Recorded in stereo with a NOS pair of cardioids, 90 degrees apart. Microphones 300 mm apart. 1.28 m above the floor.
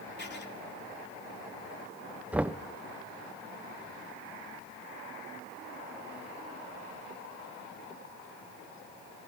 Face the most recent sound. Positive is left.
turn(degrees=-5)